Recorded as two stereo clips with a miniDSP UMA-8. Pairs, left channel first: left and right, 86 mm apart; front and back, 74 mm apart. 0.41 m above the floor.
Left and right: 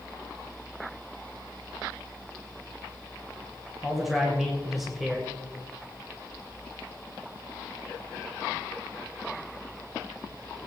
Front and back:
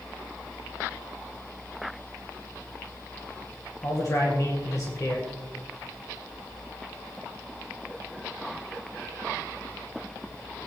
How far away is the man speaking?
About 2 m.